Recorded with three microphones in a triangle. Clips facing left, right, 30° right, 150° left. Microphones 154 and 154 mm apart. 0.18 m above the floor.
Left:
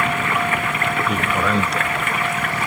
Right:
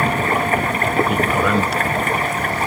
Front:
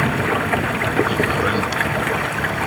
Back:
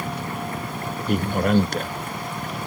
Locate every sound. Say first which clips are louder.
0.0 s running water: right 3 dB, front 9 dB; 35° right
1.1 s a man speaking: right 3 dB, front 1 dB; straight behind